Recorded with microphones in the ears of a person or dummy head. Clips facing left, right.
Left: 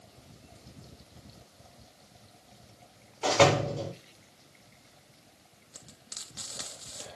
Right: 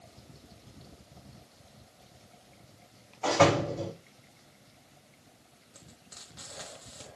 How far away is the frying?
About 1.1 m.